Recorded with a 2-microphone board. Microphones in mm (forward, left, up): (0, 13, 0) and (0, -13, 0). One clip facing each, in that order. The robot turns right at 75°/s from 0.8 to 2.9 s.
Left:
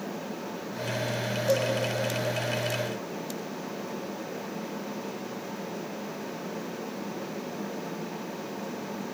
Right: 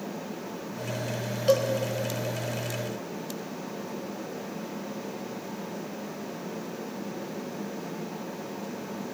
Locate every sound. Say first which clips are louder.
1.5 s a cowbell: right 3 dB; 65° right (ahead or behind), 2.5 m; by 1.7 s 55° right (ahead or behind), 2.5 m